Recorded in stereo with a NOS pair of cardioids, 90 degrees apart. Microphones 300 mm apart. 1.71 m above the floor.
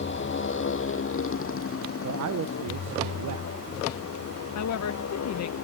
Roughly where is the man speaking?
Ahead right.